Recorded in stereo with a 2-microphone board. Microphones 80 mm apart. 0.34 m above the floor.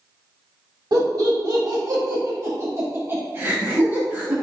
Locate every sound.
0.9 s laughter: 55° right (ahead or behind), 1.4 m; by 4.3 s 20° right (ahead or behind), 2 m